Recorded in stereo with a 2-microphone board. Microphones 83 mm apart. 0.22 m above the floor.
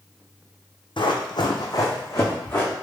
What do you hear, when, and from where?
1.0 s running footsteps: 75° left (ahead or behind), 0.6 m; by 2.7 s 25° left (ahead or behind), 1.1 m